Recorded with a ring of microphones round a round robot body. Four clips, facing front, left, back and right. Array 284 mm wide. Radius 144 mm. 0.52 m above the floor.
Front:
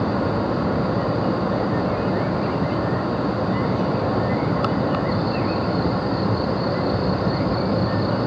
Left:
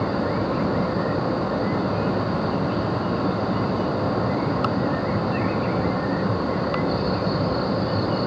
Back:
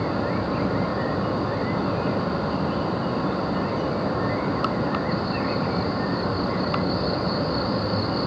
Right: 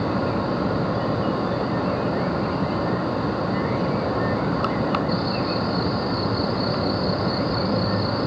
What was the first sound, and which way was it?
Only background noise.